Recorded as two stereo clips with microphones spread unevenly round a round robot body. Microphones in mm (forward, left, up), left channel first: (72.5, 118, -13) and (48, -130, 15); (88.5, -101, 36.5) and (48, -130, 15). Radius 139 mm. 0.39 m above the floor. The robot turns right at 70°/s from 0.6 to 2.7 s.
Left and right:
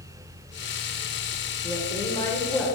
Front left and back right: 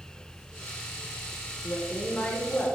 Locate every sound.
1.6 s a woman speaking: 90° left, 1.0 m; by 2.7 s 160° left, 1.0 m